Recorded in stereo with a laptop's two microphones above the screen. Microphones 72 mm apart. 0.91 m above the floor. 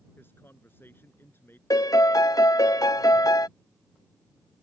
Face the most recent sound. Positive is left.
turn(degrees=50)  # may be behind; listen again after turning